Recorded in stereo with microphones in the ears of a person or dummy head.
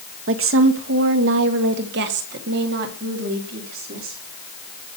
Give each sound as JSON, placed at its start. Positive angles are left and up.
{"t": 0.3, "sound": "a woman speaking", "side_deg": -70, "distance_m": 1.5}